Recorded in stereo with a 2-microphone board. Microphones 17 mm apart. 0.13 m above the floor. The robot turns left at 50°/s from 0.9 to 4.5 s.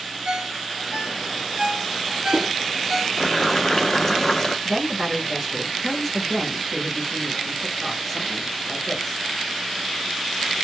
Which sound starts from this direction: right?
A ringtone, at 0.2 s.